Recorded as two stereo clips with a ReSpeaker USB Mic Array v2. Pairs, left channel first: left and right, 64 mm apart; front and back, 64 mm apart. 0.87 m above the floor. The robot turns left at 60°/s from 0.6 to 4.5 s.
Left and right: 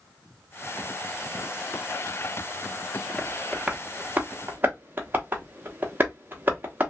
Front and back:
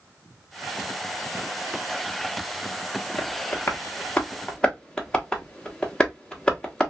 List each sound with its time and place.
3.2 s tapping: 15° left, 1.0 m; by 6.9 s 65° right, 1.0 m